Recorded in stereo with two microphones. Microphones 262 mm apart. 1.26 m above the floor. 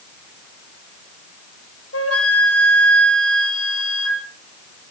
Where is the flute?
65° left (ahead or behind), 3.5 m.